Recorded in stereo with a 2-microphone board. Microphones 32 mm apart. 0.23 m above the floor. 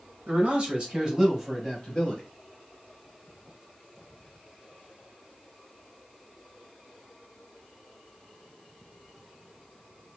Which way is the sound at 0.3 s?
40° right (ahead or behind).